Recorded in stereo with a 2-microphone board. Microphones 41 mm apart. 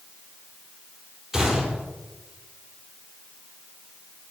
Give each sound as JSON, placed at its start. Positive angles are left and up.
{"t": 1.3, "sound": "a gunshot", "side_deg": -5, "distance_m": 3.0}